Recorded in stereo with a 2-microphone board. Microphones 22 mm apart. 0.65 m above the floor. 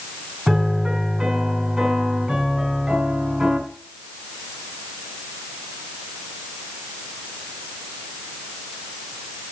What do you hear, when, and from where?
0.5 s a piano: 30° right (ahead or behind), 5 m